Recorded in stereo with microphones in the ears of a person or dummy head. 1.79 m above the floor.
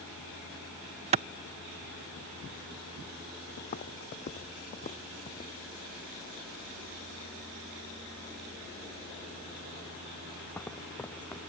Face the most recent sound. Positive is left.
turn(degrees=5)  # may be behind; listen again after turning